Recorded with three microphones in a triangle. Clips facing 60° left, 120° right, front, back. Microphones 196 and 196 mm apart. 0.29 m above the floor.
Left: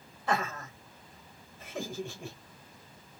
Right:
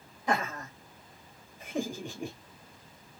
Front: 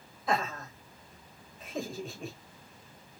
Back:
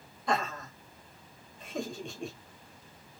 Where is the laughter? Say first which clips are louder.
Right 1 dB, even; 80° right, 1.2 m.